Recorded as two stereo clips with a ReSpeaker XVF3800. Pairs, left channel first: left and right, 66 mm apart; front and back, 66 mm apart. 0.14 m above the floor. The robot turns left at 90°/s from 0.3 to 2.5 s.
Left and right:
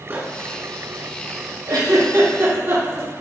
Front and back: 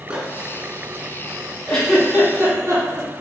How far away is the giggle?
About 2.5 m.